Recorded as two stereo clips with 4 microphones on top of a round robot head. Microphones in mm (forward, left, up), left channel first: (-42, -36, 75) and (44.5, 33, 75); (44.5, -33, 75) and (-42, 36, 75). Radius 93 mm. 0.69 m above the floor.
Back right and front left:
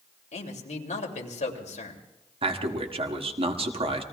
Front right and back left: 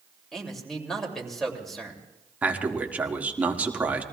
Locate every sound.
0.3 s a man speaking: 125° right, 2.5 m
2.4 s a man speaking: 65° left, 1.8 m